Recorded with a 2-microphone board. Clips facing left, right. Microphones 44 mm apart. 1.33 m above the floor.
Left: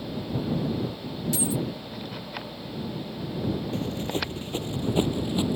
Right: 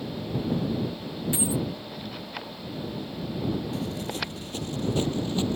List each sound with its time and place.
1.3 s a dropped coin: 25° right (ahead or behind)
3.7 s running footsteps: 35° left (ahead or behind); by 5.6 s 10° left (ahead or behind)